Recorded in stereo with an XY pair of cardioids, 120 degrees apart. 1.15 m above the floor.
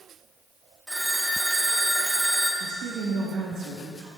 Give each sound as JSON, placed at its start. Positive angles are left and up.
{"t": 0.9, "sound": "a phone ringing", "azimuth_deg": -5, "distance_m": 1.5}
{"t": 2.6, "sound": "a woman speaking", "azimuth_deg": -65, "distance_m": 1.9}